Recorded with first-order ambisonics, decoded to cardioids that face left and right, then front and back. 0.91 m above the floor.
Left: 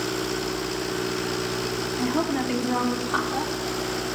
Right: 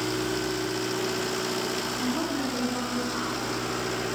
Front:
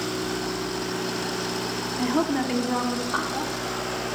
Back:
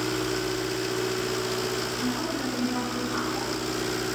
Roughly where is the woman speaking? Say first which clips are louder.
Left 3 dB, front 5 dB; ahead.